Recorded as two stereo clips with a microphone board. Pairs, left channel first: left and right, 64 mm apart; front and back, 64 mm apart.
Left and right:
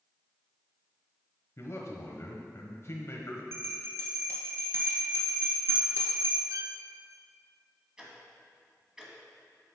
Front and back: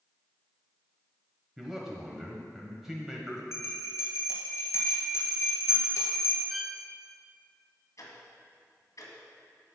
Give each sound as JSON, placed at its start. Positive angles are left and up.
{"t": 1.6, "sound": "a man speaking", "azimuth_deg": 100, "distance_m": 1.2}
{"t": 3.5, "sound": "a bell", "azimuth_deg": -45, "distance_m": 2.0}
{"t": 6.5, "sound": "a violin", "azimuth_deg": -90, "distance_m": 0.7}
{"t": 8.0, "sound": "ticking", "azimuth_deg": -15, "distance_m": 1.7}